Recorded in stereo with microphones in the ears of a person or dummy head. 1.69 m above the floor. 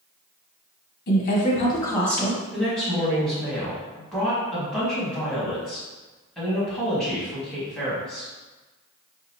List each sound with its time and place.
1.1 s a woman speaking: 55° left (ahead or behind), 1.1 m; by 2.4 s 5° right (ahead or behind), 1.2 m
2.5 s a woman speaking: centre (ahead or behind), 1.8 m